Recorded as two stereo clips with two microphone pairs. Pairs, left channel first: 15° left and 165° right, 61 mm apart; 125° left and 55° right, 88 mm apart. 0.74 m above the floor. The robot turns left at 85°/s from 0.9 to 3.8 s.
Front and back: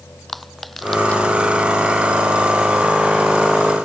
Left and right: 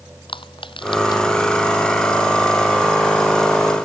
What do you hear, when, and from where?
0.3 s crushing: 105° left; by 1.2 s 80° left